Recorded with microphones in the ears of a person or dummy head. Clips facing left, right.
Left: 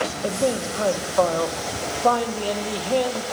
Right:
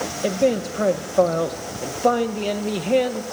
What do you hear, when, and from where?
0.2 s a man speaking: 30° right (ahead or behind), 1.3 m